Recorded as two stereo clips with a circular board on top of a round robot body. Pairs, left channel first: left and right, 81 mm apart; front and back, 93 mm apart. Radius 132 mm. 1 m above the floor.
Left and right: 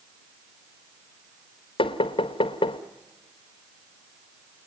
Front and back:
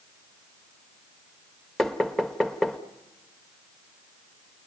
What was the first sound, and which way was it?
Knocking, 85° left.